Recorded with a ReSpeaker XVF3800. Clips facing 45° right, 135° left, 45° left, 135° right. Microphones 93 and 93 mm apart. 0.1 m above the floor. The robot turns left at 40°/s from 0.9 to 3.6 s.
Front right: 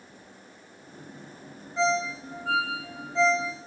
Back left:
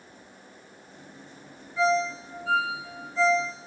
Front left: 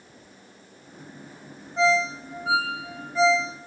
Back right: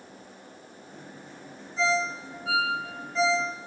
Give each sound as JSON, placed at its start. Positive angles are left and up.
{"t": 1.8, "sound": "a ringtone", "azimuth_deg": 20, "distance_m": 3.0}